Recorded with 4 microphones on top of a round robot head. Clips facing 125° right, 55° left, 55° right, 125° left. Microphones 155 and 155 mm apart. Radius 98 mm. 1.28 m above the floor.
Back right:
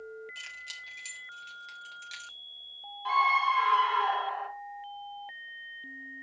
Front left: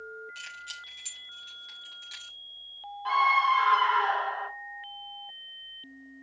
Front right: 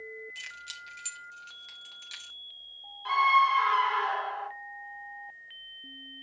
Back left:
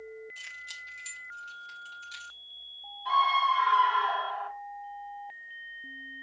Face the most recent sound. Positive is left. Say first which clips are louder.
# front left 2 dB, front right 1 dB
turn(degrees=-40)